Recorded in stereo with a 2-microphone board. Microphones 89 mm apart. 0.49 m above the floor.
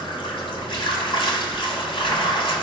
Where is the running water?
65° left (ahead or behind), 1.2 m.